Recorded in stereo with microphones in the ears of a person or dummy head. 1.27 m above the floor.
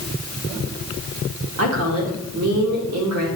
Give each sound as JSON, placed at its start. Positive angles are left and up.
{"t": 1.6, "sound": "a woman speaking", "side_deg": -80, "distance_m": 2.0}